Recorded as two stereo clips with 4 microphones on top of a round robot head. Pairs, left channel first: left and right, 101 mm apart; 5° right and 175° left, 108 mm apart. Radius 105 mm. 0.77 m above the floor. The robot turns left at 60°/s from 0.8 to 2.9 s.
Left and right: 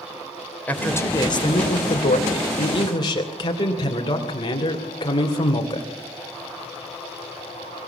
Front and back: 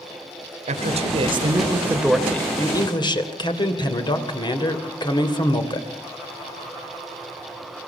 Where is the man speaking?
165° left, 3 m; by 5.9 s 40° left, 3 m.